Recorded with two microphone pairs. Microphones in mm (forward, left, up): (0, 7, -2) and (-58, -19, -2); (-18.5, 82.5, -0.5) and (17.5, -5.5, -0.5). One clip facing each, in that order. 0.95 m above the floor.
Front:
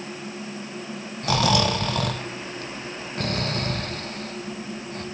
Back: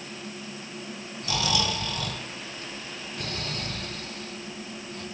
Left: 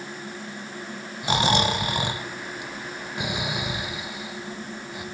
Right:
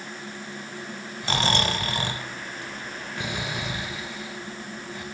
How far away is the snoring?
About 1.1 m.